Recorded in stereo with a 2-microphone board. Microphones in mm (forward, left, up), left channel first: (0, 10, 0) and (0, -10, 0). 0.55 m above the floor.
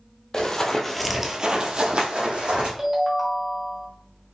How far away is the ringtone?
About 0.9 m.